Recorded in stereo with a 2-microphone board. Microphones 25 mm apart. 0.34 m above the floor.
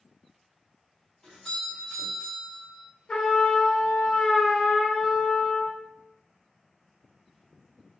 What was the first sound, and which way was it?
A doorbell, 30° left (ahead or behind).